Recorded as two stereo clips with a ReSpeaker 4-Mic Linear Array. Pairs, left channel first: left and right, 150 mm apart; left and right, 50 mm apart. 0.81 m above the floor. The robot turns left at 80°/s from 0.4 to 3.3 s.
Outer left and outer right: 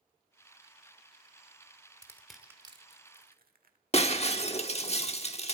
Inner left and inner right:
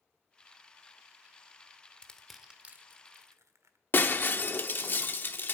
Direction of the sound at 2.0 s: 25° left (ahead or behind).